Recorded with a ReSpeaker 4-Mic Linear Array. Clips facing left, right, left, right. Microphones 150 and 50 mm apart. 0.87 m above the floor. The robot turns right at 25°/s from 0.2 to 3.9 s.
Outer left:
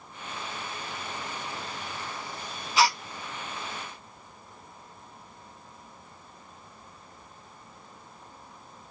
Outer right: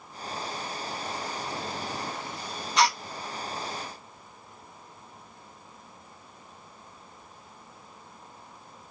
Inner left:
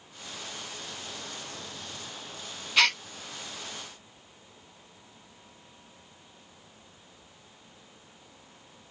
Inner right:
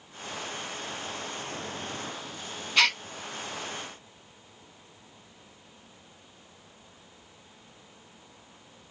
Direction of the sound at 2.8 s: 5° left (ahead or behind).